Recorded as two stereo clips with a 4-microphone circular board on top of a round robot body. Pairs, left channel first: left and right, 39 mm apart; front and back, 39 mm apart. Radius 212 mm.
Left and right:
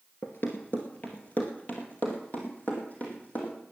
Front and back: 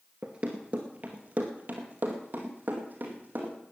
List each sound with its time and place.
0.2 s running footsteps: 130° left, 0.8 m; by 3.6 s 140° left, 3 m